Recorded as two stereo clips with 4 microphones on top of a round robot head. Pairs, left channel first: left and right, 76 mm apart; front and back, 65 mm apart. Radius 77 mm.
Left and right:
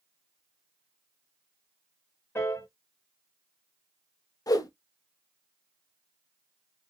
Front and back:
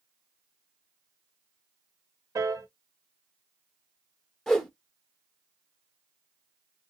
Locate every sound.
2.4 s a piano: 155° left, 1.1 m
4.5 s a whoosh: 85° left, 1.3 m